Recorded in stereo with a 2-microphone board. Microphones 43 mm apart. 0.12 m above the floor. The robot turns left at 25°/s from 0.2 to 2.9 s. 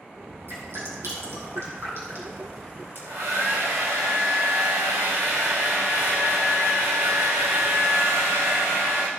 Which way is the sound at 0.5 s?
65° right (ahead or behind).